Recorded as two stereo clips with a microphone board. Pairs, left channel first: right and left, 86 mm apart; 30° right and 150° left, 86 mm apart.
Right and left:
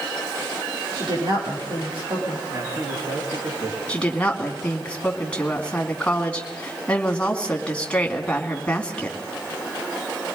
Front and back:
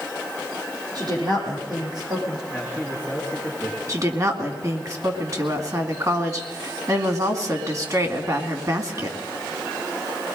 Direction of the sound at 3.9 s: 165° right.